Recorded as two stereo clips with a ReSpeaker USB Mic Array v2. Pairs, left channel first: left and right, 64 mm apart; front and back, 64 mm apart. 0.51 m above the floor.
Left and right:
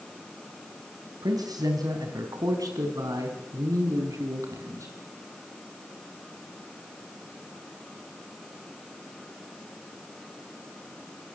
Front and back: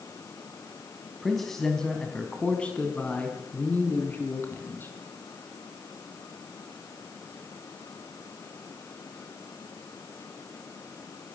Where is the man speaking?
90° right, 3.5 m; by 4.9 s 55° right, 5 m.